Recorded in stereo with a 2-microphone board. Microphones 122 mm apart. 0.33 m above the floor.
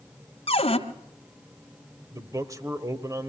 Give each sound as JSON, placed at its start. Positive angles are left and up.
{"t": 0.5, "sound": "a cupboard door", "side_deg": 55, "distance_m": 1.6}
{"t": 2.1, "sound": "a man speaking", "side_deg": -30, "distance_m": 1.1}